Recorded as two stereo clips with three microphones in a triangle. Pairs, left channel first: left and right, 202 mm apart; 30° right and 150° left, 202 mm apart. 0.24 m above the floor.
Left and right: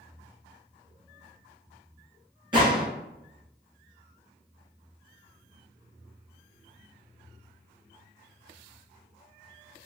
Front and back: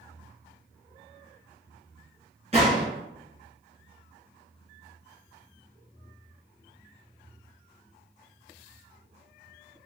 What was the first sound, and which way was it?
A gunshot, 155° right.